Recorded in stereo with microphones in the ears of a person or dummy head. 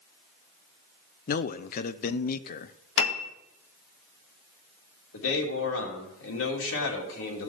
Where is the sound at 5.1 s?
70° left (ahead or behind), 3 m.